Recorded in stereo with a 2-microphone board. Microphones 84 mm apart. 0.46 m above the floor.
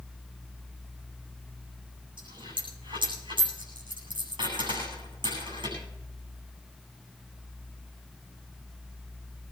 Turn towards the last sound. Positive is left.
turn(degrees=-70)  # may be behind; listen again after turning